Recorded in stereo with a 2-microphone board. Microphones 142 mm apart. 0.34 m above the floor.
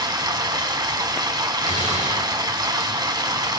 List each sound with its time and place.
0.0 s running water: 30° right (ahead or behind), 1.4 m
1.6 s a gunshot: 60° right (ahead or behind), 5 m